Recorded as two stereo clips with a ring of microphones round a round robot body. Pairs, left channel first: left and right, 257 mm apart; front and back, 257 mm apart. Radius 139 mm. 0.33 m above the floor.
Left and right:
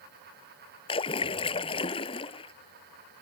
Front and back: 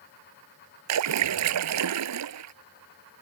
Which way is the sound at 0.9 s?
165° left.